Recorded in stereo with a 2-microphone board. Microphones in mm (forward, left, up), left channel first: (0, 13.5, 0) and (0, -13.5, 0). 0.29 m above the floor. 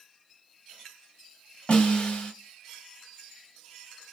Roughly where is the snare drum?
Left.